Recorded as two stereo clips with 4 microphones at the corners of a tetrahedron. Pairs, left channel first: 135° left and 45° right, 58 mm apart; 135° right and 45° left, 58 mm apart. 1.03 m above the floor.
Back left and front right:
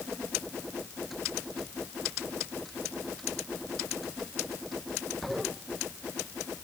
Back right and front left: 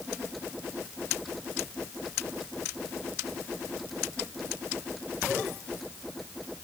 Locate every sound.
Only background noise.